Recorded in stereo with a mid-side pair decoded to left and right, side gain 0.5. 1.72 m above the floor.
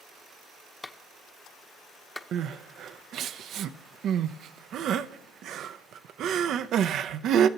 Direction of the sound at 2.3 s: 65° right.